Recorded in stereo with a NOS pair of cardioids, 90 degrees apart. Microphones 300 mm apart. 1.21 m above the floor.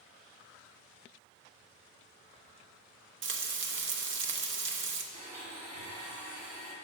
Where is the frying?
40° right, 0.7 m.